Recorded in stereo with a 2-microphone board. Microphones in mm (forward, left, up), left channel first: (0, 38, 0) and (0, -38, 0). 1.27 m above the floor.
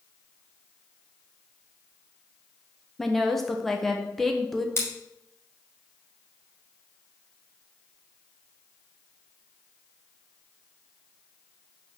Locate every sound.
3.0 s a woman speaking: centre (ahead or behind), 0.8 m
4.8 s scissors: 35° left (ahead or behind), 2.5 m